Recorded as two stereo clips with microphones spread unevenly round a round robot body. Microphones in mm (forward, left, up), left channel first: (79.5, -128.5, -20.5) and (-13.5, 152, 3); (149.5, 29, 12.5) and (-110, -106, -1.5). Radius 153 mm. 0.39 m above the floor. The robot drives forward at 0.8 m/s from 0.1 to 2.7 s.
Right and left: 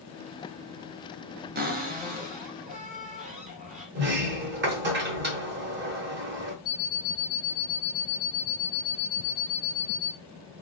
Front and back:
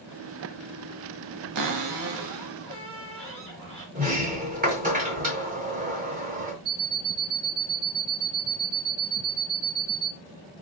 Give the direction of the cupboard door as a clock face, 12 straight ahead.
6 o'clock.